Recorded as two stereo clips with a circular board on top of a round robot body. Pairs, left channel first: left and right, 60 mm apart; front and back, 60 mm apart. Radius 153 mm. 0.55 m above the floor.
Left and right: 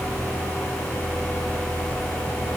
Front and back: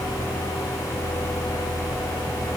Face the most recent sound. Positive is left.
No sound to turn to.